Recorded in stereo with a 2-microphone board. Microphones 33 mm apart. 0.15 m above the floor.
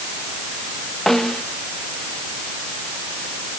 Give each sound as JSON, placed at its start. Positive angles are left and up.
{"t": 1.1, "sound": "a snare drum", "side_deg": 5}